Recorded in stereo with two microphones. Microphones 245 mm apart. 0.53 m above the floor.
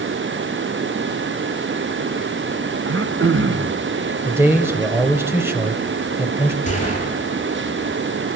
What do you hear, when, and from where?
2.9 s throat clearing: 55° right (ahead or behind), 1.2 m
4.2 s a man speaking: 10° right (ahead or behind), 3 m
6.7 s a gunshot: 30° left (ahead or behind), 9.5 m